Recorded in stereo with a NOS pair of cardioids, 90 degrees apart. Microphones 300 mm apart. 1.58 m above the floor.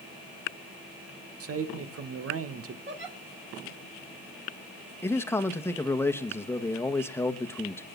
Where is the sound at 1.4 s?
50° right, 1.9 m.